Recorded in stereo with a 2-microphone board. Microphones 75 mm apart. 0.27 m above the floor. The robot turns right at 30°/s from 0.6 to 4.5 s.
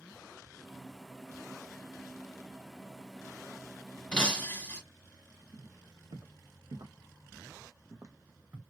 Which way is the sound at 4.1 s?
15° left (ahead or behind).